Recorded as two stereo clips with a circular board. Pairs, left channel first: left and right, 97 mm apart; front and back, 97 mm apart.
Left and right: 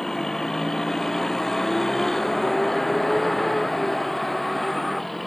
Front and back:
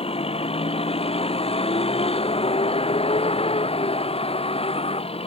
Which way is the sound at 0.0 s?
5° left.